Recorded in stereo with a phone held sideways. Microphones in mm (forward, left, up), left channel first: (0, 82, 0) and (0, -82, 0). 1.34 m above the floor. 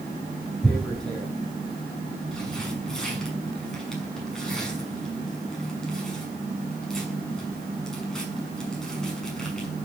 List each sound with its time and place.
0.6 s tearing paper: 5° left (ahead or behind), 6.5 m